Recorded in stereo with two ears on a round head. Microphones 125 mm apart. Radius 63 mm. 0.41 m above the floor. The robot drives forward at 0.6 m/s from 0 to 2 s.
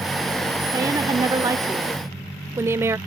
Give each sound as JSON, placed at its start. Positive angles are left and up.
{"t": 0.7, "sound": "a woman speaking", "side_deg": -25}